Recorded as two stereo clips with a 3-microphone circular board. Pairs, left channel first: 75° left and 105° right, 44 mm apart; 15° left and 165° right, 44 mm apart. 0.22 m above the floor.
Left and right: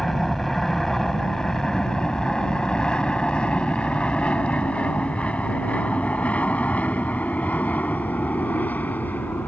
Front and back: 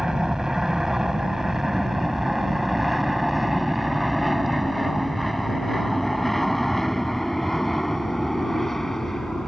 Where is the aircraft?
145° left; by 9.5 s 95° left.